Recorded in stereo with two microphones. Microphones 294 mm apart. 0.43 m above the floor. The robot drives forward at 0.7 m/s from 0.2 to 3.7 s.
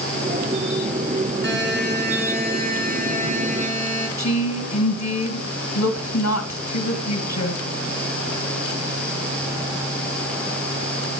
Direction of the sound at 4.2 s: 65° left (ahead or behind).